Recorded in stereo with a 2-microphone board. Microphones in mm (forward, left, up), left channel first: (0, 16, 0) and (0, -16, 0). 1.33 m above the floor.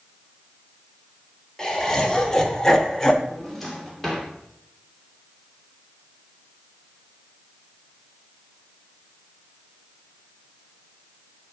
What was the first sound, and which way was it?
Laughter, 20° left (ahead or behind).